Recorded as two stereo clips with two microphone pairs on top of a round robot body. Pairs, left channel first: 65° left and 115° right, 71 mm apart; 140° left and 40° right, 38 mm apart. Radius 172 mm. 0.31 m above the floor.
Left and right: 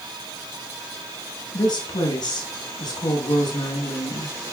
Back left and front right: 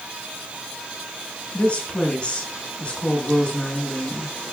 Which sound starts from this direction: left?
A woman speaking, at 1.5 s.